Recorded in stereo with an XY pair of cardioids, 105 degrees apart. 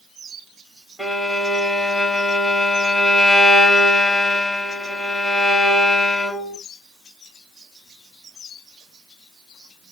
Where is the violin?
5° left, 1.4 m.